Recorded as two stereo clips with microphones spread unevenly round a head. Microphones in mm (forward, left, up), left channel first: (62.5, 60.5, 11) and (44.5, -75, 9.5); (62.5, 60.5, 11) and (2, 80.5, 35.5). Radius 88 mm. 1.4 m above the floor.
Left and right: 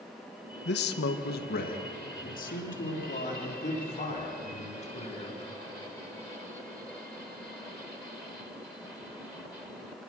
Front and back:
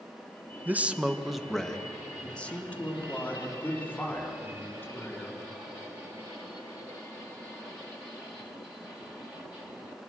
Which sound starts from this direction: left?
A man speaking, at 0.7 s.